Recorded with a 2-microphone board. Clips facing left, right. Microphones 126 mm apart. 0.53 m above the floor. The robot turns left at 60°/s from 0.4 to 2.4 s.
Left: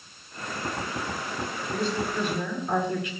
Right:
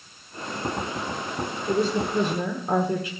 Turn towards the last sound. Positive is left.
turn(degrees=-135)